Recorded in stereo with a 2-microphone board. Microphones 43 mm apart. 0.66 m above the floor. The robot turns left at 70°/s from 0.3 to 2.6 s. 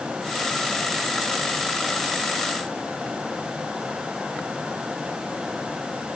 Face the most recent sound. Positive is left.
No sound to turn to.